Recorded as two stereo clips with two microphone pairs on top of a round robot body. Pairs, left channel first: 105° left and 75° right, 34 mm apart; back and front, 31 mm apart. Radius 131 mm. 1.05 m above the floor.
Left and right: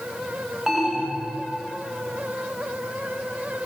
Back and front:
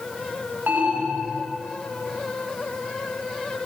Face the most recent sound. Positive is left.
turn(degrees=5)